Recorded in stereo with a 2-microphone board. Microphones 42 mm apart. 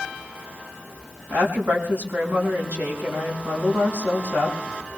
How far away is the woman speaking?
About 6 m.